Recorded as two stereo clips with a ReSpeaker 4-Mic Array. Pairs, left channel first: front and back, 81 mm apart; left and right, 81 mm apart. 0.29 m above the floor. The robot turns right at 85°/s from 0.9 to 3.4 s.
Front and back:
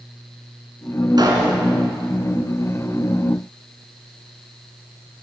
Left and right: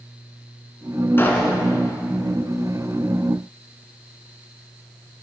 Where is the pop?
150° left, 2.5 m; by 1.6 s 175° right, 2.5 m.